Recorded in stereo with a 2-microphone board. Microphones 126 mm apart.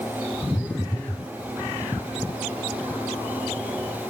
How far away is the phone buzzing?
About 0.9 m.